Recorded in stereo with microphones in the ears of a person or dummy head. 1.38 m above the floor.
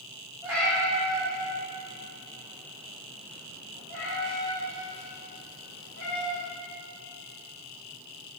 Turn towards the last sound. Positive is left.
turn(degrees=75)  # may be behind; listen again after turning